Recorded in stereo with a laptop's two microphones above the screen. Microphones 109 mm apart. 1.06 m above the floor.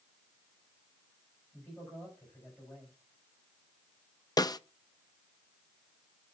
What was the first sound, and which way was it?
A man speaking, 15° left (ahead or behind).